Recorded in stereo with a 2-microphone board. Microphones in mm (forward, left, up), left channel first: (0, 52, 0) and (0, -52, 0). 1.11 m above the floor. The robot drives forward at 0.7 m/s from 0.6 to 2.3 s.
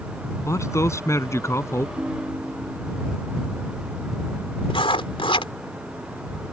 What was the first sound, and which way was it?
A man speaking, 30° left (ahead or behind).